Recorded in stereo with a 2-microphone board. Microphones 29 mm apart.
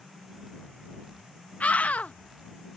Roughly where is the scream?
Left.